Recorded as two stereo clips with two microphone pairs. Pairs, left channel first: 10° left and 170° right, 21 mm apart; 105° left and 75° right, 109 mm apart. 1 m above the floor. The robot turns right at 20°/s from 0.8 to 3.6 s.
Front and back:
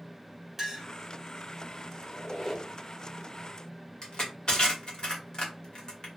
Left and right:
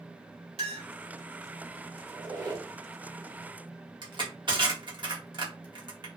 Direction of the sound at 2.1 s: 35° right.